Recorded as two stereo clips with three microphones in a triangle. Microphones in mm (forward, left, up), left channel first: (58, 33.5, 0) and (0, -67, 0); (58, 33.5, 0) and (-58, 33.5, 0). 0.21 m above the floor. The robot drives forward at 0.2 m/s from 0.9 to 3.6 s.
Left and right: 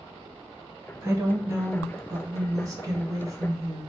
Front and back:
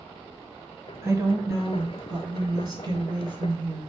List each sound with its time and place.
1.0 s a woman speaking: 150° right, 1.1 m; by 3.9 s 165° right, 1.4 m